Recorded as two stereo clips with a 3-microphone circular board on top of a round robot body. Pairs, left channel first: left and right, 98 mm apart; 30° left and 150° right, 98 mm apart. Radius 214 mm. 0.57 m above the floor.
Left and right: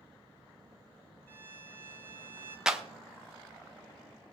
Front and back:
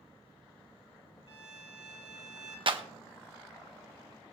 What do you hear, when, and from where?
1.3 s a violin: 25° left, 4 m
2.7 s a clap: 175° right, 1.2 m